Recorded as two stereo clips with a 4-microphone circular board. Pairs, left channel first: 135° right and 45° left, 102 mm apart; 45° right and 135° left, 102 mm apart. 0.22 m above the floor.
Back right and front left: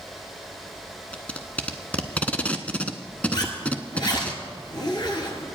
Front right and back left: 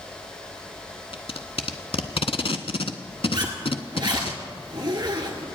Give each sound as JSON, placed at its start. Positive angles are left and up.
{"t": 1.1, "sound": "tape being pulled", "azimuth_deg": -60, "distance_m": 0.7}
{"t": 3.3, "sound": "a zipper", "azimuth_deg": 180, "distance_m": 1.8}